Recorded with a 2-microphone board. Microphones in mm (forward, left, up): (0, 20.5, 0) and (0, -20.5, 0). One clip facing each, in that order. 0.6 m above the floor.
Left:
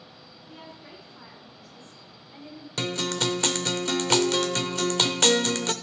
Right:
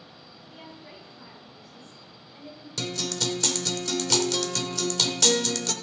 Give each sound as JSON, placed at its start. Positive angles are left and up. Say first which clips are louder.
{"t": 0.5, "sound": "a woman speaking", "louder": "left 1 dB", "side_deg": 70, "distance_m": 4.5}
{"t": 2.8, "sound": "a guitar", "louder": "left 3 dB", "side_deg": 40, "distance_m": 0.6}